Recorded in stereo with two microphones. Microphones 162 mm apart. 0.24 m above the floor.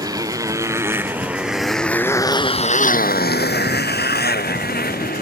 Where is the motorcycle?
25° right (ahead or behind); by 5.2 s 65° left (ahead or behind).